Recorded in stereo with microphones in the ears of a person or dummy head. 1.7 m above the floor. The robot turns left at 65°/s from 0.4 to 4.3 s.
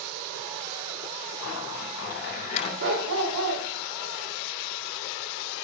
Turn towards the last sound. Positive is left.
turn(degrees=-175)